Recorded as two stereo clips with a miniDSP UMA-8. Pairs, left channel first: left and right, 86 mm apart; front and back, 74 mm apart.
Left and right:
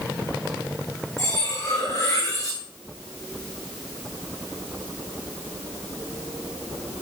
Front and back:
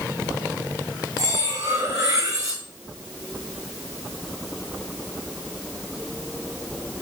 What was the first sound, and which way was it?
Cutlery clinking, 135° left.